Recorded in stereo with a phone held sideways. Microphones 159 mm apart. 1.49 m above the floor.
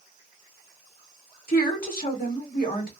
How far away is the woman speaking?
About 1.6 m.